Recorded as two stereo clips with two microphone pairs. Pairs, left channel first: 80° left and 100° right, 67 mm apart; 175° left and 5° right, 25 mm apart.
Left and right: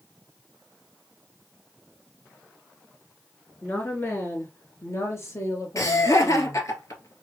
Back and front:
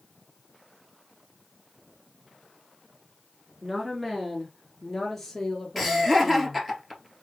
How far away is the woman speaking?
About 1.6 m.